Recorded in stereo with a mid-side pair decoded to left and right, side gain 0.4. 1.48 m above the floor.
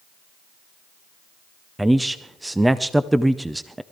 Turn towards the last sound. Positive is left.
turn(degrees=-10)